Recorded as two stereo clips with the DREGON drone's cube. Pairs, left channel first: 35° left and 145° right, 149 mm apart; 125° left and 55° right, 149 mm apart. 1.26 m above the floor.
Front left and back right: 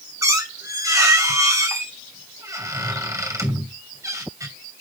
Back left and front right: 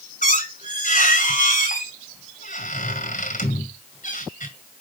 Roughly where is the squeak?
Behind left.